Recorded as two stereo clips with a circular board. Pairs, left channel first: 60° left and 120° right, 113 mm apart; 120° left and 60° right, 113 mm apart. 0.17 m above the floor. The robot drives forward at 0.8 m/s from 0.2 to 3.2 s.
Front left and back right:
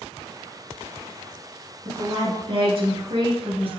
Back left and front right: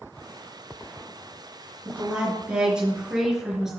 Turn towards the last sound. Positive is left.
turn(degrees=-145)